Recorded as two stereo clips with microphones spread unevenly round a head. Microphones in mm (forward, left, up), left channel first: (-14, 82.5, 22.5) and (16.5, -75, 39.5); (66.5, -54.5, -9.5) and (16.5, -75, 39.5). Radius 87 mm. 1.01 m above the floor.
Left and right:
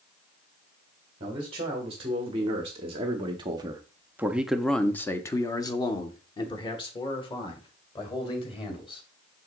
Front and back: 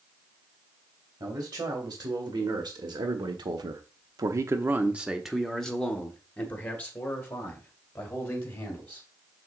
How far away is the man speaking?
About 1.9 m.